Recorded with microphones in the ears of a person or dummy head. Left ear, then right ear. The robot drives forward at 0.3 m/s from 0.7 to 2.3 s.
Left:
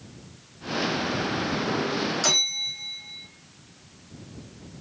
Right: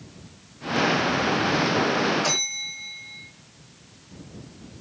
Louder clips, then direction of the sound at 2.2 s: Left 2 dB; 85° left.